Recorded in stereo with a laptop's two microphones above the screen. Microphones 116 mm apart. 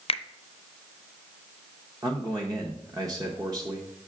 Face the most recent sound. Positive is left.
turn(degrees=-35)  # may be behind; listen again after turning